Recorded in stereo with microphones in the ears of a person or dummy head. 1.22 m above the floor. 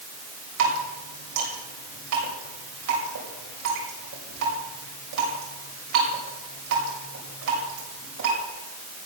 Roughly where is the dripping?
Right.